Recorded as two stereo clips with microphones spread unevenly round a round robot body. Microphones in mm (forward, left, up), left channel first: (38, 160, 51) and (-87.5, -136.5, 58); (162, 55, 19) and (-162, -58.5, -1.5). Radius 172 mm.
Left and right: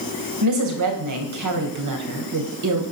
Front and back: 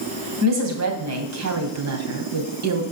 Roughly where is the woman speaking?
Behind right.